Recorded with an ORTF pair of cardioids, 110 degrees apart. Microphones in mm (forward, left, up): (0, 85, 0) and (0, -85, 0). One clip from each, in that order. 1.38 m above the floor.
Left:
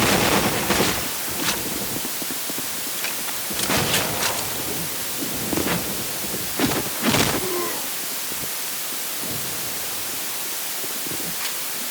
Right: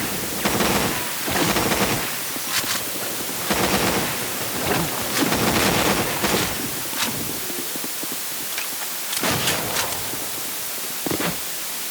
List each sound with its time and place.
Only background noise.